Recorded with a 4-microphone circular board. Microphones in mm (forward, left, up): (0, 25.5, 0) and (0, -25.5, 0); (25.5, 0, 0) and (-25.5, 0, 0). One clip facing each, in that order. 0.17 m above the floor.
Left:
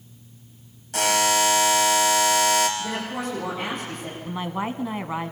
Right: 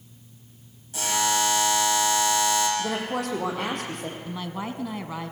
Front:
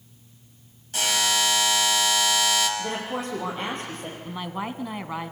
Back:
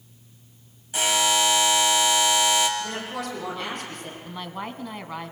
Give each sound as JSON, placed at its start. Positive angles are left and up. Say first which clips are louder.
{"t": 0.9, "sound": "a buzzer", "louder": "left 4 dB, back 2 dB", "azimuth_deg": 100, "distance_m": 3.5}
{"t": 2.8, "sound": "a woman speaking", "louder": "right 1 dB, front 2 dB", "azimuth_deg": -60, "distance_m": 6.0}
{"t": 4.2, "sound": "a woman speaking", "louder": "left 8 dB, front 3 dB", "azimuth_deg": 70, "distance_m": 1.1}